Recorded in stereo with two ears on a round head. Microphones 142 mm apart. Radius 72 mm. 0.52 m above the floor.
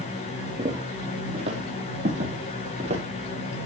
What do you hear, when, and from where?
0.6 s footsteps: 30° right (ahead or behind), 6 m; by 3.0 s 40° right (ahead or behind), 9 m